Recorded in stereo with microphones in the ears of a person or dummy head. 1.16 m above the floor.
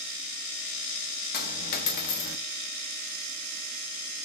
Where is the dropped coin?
50° left (ahead or behind), 0.8 m.